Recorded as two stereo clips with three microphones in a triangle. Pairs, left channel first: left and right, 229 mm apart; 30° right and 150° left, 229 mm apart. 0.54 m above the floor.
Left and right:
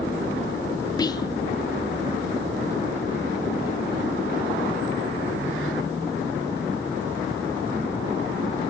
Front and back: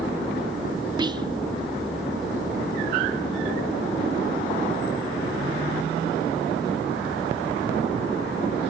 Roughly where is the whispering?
Behind left.